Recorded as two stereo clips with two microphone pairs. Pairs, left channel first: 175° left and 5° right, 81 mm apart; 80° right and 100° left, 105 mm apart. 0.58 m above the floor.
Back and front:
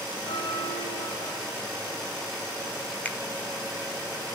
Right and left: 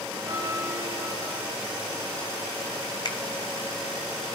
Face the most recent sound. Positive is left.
turn(degrees=-120)